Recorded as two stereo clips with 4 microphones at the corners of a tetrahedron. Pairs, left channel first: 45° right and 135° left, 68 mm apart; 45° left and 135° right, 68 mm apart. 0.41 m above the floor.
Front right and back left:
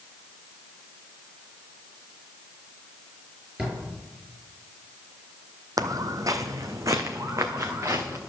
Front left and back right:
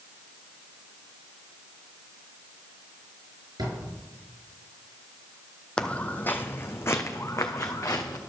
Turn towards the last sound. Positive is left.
turn(degrees=90)